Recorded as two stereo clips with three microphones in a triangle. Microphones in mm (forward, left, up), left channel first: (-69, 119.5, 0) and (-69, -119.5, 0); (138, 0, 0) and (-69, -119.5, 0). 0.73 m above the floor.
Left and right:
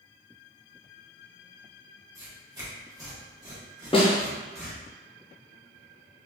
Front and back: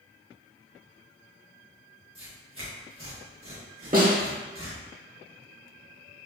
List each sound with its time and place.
2.1 s tearing paper: 165° right, 1.1 m
3.9 s a snare drum: 160° left, 0.8 m